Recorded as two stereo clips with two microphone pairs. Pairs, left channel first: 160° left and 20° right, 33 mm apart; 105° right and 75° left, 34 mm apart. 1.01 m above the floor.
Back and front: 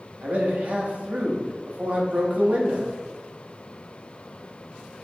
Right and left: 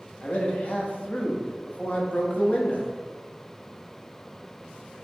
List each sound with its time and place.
0.2 s a man speaking: 60° right, 1.0 m